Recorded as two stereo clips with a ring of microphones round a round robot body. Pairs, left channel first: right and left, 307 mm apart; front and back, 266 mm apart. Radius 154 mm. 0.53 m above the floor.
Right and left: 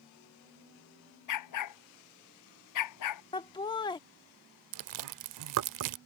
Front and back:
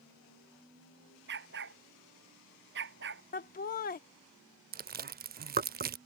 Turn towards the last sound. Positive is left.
turn(degrees=120)